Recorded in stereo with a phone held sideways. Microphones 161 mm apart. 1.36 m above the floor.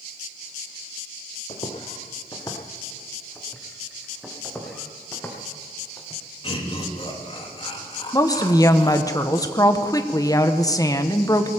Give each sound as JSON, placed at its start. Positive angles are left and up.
{"t": 1.5, "sound": "footsteps", "side_deg": 40, "distance_m": 2.5}
{"t": 4.4, "sound": "footsteps", "side_deg": 10, "distance_m": 4.0}
{"t": 6.4, "sound": "laughter", "side_deg": 35, "distance_m": 3.0}
{"t": 8.1, "sound": "a woman speaking", "side_deg": 20, "distance_m": 1.1}